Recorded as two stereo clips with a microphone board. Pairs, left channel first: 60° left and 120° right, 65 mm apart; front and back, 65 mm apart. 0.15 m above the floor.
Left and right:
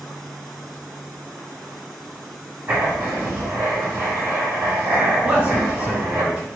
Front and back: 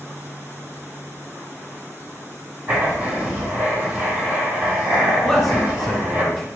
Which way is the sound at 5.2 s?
85° right.